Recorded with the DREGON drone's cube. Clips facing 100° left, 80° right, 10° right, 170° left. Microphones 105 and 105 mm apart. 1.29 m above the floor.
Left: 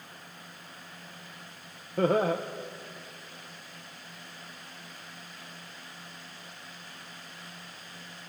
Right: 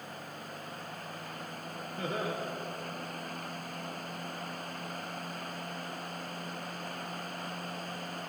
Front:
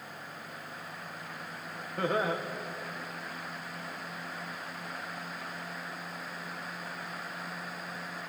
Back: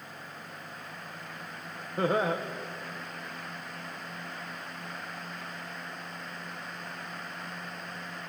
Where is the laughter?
95° left, 0.9 m.